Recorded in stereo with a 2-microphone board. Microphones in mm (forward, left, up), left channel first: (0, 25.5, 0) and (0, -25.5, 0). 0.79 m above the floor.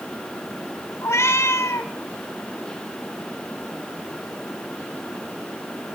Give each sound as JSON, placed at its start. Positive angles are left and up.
{"t": 1.0, "sound": "a cat meowing", "side_deg": 70, "distance_m": 1.4}